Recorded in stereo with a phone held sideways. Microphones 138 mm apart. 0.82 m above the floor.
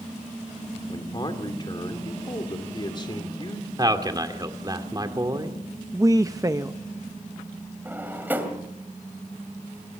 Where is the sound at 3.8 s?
30° right (ahead or behind), 2 m.